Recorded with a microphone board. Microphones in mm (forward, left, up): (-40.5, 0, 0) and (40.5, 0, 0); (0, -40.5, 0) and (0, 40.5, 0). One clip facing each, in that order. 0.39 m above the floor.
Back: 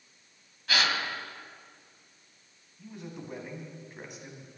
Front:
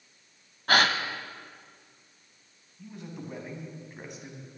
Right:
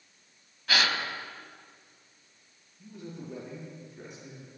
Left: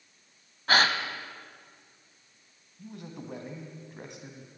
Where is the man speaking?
90° left, 2.5 m.